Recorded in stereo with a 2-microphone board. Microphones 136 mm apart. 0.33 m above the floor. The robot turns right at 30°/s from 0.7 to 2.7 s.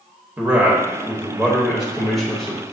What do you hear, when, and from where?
0.4 s a man speaking: 15° right (ahead or behind), 0.9 m; by 2.6 s 5° left (ahead or behind), 0.9 m